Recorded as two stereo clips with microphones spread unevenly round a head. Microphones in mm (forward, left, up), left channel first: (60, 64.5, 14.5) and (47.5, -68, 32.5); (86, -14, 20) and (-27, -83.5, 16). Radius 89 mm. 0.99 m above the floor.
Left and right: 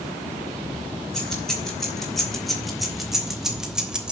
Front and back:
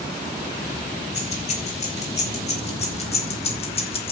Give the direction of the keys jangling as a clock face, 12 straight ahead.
12 o'clock.